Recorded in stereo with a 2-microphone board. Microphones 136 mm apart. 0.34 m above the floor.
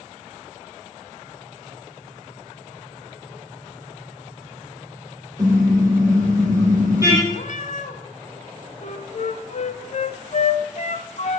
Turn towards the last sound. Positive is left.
turn(degrees=55)  # may be behind; listen again after turning